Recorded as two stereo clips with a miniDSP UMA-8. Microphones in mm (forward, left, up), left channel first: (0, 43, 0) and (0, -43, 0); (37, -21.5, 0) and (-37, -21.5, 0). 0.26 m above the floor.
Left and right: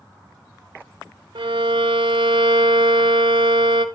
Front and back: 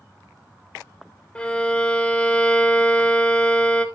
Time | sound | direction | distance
1.4 | a violin | 75° right | 0.6 m